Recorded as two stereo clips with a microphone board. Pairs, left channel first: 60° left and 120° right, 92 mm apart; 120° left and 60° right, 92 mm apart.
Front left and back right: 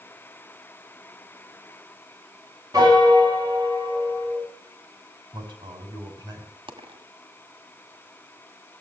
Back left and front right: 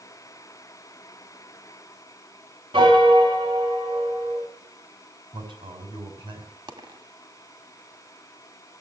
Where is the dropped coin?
95° right, 1.8 m.